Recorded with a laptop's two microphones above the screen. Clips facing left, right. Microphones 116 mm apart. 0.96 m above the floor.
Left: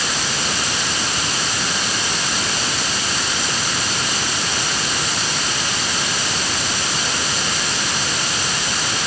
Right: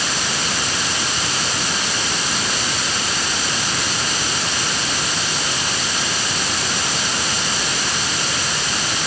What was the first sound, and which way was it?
Only background noise.